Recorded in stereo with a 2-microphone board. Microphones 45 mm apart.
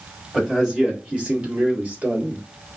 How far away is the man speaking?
About 1.6 m.